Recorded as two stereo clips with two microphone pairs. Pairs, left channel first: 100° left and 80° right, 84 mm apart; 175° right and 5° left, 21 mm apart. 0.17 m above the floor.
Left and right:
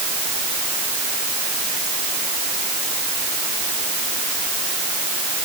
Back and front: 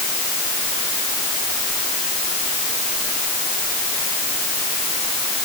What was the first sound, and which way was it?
Only background noise.